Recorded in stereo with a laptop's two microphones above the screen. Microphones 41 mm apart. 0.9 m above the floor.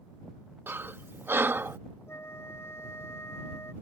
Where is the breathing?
60° right (ahead or behind).